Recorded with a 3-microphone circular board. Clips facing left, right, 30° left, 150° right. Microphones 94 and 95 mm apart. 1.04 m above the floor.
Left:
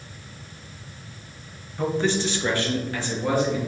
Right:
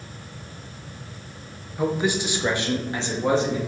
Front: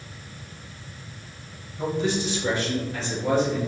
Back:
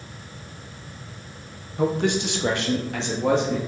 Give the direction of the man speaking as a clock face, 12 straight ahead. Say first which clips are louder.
Even, back 3 dB; 6 o'clock.